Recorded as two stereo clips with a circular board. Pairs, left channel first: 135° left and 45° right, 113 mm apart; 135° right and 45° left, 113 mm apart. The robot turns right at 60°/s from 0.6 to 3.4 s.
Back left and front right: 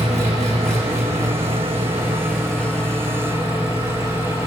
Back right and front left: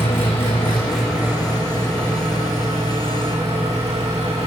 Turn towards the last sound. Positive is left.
turn(degrees=100)